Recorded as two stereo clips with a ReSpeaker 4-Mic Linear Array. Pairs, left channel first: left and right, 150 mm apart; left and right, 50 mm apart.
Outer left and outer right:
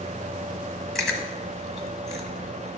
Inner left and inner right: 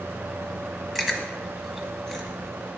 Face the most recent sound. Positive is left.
turn(degrees=0)  # may be behind; listen again after turning